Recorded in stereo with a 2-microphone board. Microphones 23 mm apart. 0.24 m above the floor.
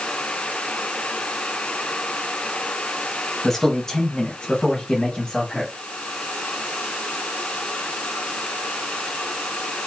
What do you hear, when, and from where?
3.4 s a man speaking: 10° left (ahead or behind), 1.0 m; by 5.7 s 40° left (ahead or behind), 1.7 m